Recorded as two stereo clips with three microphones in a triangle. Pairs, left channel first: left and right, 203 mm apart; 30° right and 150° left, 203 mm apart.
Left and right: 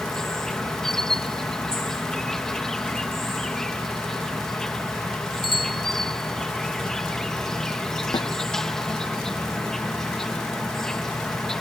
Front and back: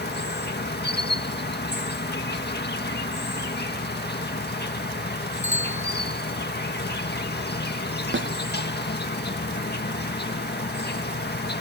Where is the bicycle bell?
25° left.